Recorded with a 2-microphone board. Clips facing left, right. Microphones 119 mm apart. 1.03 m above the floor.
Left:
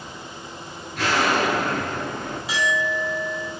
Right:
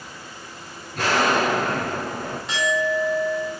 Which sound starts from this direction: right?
An explosion, at 0.9 s.